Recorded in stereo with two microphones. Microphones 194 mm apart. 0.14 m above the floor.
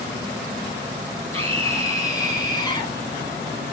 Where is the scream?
15° left (ahead or behind), 2.5 m; by 3.0 s 25° left (ahead or behind), 1.6 m.